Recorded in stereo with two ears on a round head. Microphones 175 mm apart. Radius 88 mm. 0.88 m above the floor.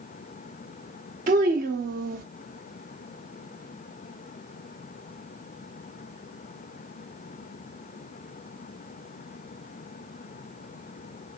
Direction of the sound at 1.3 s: 45° right (ahead or behind).